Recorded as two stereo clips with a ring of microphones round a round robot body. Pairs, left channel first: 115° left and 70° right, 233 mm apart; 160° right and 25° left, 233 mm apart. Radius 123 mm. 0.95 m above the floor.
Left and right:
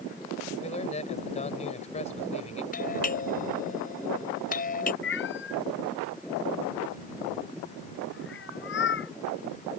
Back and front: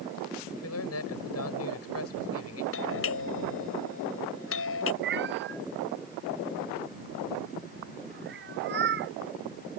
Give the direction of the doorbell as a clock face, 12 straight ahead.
6 o'clock.